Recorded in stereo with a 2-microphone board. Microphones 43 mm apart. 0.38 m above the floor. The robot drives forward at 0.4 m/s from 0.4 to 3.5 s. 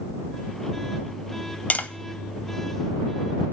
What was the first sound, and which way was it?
Tapping, 40° left (ahead or behind).